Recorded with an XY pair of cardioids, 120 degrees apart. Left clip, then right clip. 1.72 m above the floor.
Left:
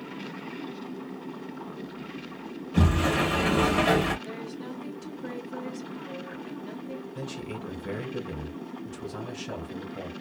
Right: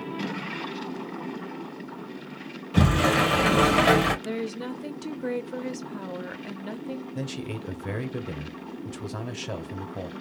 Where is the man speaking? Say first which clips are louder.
Right 2 dB; 30° right, 1.0 m.